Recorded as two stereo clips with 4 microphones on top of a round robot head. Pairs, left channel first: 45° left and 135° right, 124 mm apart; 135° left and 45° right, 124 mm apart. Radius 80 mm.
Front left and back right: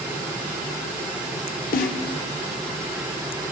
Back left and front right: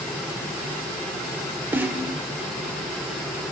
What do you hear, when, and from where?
1.7 s a snare drum: 30° left, 0.5 m